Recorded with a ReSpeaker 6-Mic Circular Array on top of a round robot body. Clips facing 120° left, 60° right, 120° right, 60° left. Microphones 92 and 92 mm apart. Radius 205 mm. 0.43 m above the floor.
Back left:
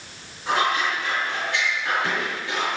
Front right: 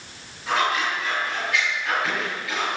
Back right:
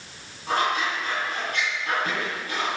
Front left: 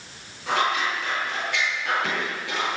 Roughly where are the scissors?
Ahead left.